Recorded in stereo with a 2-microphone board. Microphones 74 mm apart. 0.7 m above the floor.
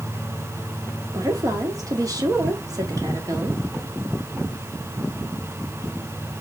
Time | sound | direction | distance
1.1 | a woman speaking | 50° right (ahead or behind) | 1.4 m